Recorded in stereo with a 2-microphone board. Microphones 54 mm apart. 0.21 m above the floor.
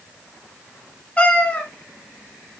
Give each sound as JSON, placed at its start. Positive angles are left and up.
{"t": 1.2, "sound": "a cat meowing", "side_deg": 25, "distance_m": 1.3}